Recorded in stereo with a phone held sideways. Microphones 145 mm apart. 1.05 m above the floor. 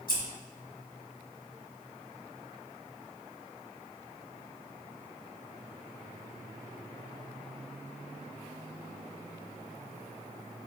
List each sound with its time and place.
0.1 s scissors: 80° left, 1.0 m